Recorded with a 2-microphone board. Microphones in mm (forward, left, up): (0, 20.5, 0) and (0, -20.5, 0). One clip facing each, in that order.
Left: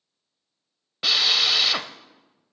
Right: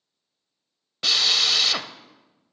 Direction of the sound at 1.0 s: 10° left (ahead or behind).